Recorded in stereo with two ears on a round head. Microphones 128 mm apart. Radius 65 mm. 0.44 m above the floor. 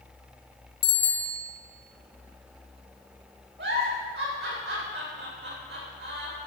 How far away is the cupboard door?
No cupboard door in this recording.